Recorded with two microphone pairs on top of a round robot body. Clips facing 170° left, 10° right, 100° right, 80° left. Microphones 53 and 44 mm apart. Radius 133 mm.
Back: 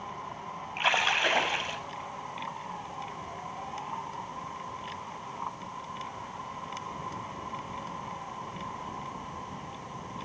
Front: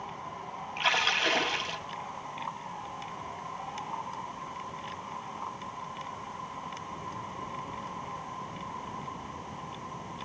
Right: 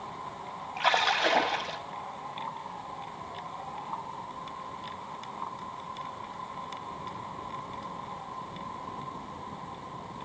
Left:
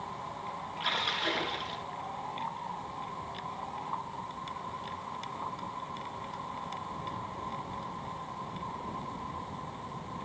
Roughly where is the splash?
Behind right.